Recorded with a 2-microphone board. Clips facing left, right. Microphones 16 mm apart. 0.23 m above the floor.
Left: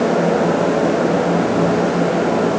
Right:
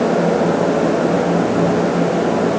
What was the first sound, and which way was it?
Only background noise.